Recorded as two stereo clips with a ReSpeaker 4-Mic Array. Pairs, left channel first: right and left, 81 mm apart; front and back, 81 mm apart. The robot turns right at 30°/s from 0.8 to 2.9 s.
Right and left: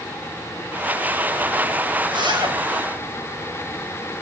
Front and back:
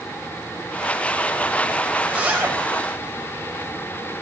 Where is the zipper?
105° left, 6.5 m; by 2.6 s 120° left, 6.5 m.